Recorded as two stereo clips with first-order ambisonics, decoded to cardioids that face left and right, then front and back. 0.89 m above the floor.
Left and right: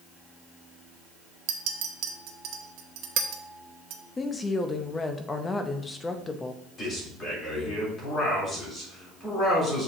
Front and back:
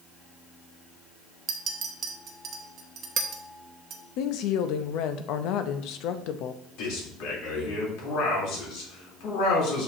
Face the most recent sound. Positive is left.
turn(degrees=25)